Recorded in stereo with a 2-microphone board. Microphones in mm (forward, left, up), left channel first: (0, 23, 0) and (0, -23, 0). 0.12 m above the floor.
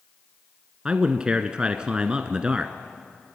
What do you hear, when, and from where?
0.8 s a man speaking: 20° right (ahead or behind), 1.2 m